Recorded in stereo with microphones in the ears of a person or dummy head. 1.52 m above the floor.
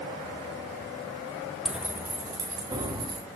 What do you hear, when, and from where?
1.6 s keys jangling: 5° right (ahead or behind), 0.6 m; by 3.2 s 20° right (ahead or behind), 2.5 m